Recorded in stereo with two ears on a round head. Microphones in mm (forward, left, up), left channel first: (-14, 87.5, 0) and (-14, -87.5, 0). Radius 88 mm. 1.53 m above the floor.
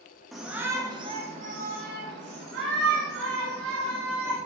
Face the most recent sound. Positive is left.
turn(degrees=-75)  # may be behind; listen again after turning